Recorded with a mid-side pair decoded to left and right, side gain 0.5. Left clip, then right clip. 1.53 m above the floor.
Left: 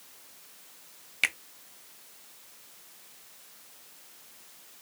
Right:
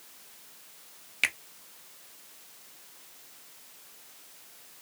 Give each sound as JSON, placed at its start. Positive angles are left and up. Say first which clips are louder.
{"t": 1.2, "sound": "a finger snap", "louder": "even", "azimuth_deg": 5, "distance_m": 0.9}